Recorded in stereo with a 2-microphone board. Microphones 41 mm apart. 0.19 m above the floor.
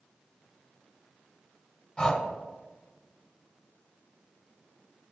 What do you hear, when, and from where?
2.0 s breathing: 20° left (ahead or behind), 0.6 m